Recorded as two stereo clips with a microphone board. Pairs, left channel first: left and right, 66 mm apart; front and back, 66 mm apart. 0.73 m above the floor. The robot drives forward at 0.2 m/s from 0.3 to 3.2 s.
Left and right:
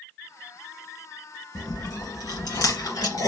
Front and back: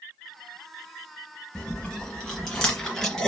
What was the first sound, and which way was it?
Chewing, 80° left.